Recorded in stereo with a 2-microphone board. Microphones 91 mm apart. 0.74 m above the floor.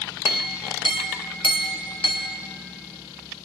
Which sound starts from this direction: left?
A clink, at 0.2 s.